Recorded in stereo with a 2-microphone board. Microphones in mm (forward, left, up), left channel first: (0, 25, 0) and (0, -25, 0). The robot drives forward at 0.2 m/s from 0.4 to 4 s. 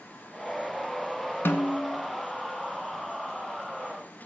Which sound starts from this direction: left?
A snare drum, at 1.4 s.